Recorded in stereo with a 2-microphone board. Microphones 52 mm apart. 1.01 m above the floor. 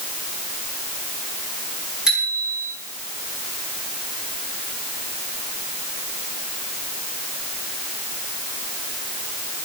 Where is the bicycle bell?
10° right (ahead or behind), 9.5 m.